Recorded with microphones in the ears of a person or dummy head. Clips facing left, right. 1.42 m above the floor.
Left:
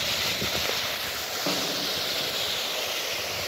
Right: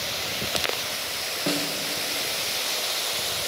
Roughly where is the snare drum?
Centre.